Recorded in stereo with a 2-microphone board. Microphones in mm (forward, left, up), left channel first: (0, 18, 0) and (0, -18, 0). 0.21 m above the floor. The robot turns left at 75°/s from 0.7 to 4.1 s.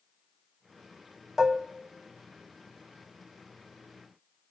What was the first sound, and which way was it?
Dishes clattering, 10° right (ahead or behind).